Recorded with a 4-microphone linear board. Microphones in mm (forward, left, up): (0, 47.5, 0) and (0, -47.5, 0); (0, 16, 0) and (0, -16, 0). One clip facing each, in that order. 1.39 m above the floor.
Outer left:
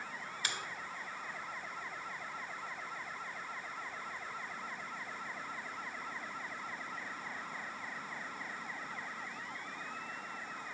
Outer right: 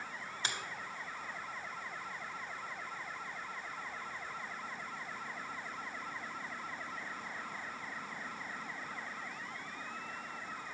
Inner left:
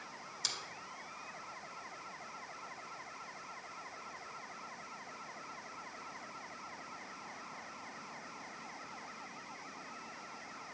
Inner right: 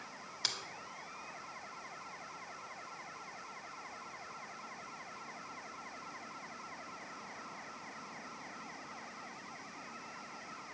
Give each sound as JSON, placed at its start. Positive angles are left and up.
{"t": 0.4, "sound": "a finger snap", "side_deg": -25, "distance_m": 0.9}